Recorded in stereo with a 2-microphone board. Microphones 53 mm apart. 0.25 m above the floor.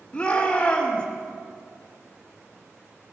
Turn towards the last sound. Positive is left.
turn(degrees=20)  # may be behind; listen again after turning